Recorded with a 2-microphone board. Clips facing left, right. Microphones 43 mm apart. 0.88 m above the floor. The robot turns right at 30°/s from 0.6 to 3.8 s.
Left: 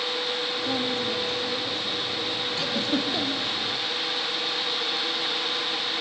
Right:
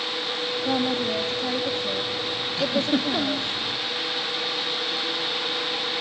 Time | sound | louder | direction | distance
0.7 | a woman speaking | right 5 dB | 150° right | 1.7 m
2.6 | a giggle | right 5 dB | centre (ahead or behind) | 1.1 m